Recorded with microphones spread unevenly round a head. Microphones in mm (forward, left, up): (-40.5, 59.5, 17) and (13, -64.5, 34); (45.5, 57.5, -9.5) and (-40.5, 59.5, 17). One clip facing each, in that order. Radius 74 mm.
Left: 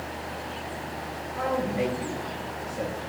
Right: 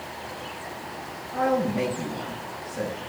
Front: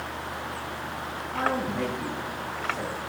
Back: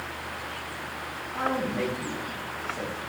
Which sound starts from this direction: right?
A man speaking, at 1.3 s.